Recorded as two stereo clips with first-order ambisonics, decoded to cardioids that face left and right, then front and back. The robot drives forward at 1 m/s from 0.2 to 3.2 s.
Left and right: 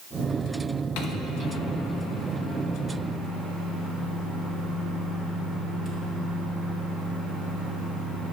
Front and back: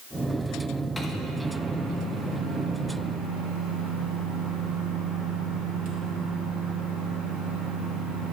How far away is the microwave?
About 1.1 m.